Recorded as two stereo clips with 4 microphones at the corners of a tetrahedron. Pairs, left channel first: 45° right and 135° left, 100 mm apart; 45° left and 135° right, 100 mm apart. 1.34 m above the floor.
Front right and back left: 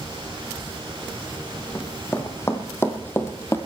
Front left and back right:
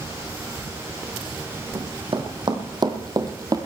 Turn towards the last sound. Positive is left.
turn(degrees=-105)